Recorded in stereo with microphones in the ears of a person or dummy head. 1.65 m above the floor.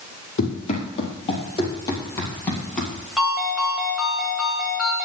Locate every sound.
0.4 s running footsteps: 40° left (ahead or behind), 3 m; by 3.0 s 5° left (ahead or behind), 3 m
3.2 s a ringtone: centre (ahead or behind), 3.5 m